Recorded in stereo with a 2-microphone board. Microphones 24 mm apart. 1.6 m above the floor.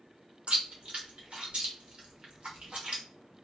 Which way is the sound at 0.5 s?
45° right (ahead or behind).